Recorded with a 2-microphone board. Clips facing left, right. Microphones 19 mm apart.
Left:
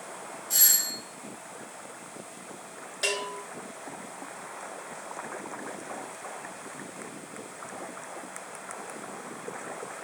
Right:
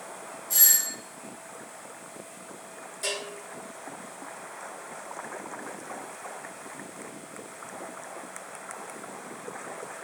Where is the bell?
45° left (ahead or behind), 1.4 m.